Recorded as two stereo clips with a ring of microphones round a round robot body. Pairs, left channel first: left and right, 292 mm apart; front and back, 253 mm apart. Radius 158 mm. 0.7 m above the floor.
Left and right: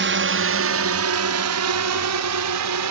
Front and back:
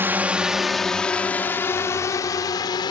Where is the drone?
100° right; by 2.9 s 75° right.